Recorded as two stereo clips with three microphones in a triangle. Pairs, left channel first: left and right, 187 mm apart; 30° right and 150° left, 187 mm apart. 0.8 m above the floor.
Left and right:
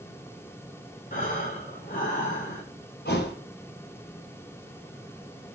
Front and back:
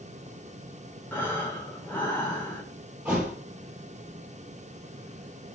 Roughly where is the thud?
Ahead left.